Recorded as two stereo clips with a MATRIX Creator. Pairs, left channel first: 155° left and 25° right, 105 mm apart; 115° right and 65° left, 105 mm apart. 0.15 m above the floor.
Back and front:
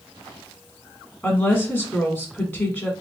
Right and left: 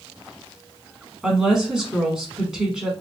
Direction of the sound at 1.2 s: 140° left.